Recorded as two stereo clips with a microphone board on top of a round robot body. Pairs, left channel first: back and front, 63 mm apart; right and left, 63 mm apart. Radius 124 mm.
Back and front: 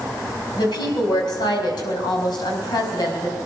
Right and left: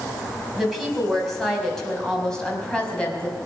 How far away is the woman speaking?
About 5 m.